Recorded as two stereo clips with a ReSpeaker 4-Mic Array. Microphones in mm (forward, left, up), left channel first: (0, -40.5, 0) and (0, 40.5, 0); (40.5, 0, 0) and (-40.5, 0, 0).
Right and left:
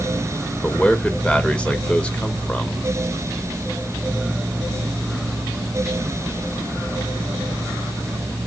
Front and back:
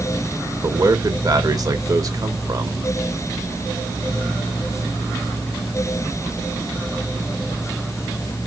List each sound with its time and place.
0.6 s a man speaking: 160° right, 1.0 m